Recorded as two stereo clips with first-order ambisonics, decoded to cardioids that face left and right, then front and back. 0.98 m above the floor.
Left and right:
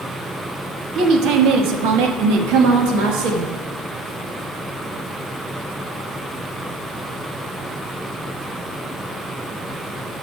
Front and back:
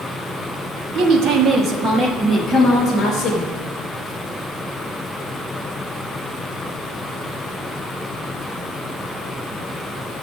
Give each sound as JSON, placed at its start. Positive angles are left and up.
{"t": 0.9, "sound": "a woman speaking", "azimuth_deg": -140, "distance_m": 1.4}